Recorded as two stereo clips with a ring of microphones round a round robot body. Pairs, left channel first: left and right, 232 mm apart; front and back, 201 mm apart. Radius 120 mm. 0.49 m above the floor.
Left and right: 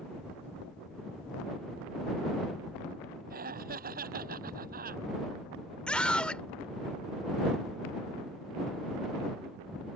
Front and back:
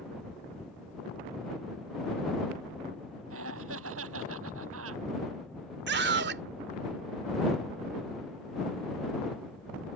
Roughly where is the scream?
Behind.